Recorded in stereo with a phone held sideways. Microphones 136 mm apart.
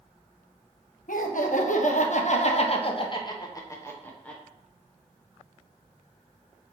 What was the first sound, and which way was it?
Laughter, 80° left.